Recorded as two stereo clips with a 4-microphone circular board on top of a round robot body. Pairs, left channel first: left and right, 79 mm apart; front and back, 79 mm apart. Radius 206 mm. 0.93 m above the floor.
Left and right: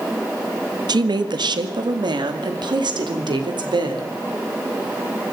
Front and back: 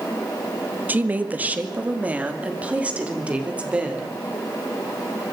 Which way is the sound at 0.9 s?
115° right.